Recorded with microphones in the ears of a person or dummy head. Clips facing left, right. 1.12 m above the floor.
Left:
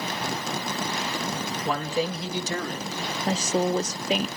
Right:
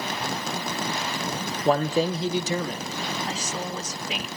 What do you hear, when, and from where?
1.6 s a man speaking: 30° right (ahead or behind), 1.1 m; by 3.0 s 5° left (ahead or behind), 1.1 m
3.3 s a woman speaking: 35° left (ahead or behind), 0.5 m